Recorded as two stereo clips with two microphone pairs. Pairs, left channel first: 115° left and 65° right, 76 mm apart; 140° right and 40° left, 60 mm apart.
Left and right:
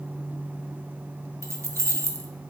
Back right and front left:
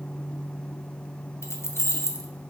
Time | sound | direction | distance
1.4 | keys jangling | 105° right | 0.6 m